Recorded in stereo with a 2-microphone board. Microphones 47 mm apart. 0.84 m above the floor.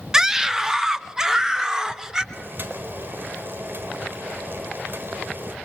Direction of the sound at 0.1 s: 15° right (ahead or behind).